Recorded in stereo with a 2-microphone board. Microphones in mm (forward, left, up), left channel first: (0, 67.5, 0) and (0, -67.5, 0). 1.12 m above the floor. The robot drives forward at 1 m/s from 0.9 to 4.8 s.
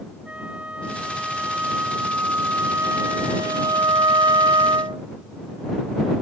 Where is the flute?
10° right (ahead or behind); by 5.0 s 35° right (ahead or behind).